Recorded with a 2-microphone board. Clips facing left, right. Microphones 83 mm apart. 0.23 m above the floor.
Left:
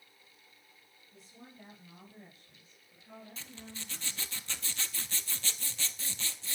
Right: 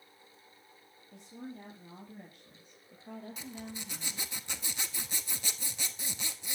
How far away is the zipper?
About 1.0 m.